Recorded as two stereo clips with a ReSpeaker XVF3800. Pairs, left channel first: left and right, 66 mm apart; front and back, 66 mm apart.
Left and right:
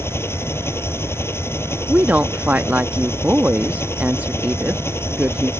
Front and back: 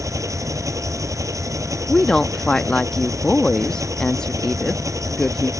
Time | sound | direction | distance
0.0 | an engine running | 140° left | ?
1.9 | a woman speaking | 65° right | ?